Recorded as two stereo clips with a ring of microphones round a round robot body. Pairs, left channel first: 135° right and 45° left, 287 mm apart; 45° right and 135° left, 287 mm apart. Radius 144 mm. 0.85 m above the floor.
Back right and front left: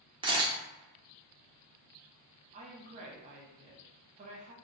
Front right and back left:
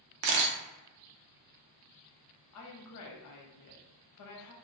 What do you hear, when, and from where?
0.2 s a camera shutter: 115° left, 0.5 m
2.5 s a woman speaking: 20° right, 0.6 m